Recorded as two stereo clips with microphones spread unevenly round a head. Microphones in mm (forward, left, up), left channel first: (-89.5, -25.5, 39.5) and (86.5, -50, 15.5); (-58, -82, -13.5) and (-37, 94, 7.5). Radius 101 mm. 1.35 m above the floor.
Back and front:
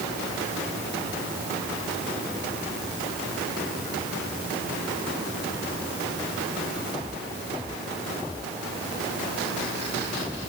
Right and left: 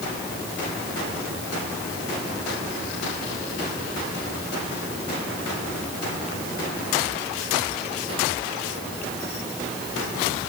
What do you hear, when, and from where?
Only background noise.